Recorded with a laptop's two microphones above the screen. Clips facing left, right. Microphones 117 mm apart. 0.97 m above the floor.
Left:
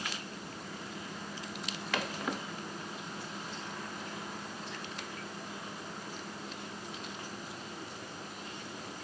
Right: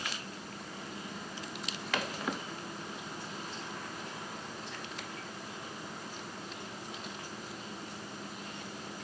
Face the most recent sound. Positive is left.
No sound to turn to.